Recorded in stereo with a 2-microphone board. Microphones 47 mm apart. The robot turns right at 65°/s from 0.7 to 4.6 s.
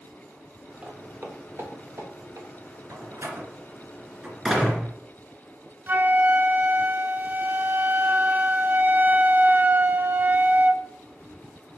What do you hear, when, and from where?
0.8 s footsteps: 25° right (ahead or behind), 3 m; by 2.5 s 80° right, 4.5 m
2.9 s a door slam: 70° right (ahead or behind), 3 m; by 4.9 s 5° left (ahead or behind), 3 m
5.9 s a flute: 45° right (ahead or behind), 0.9 m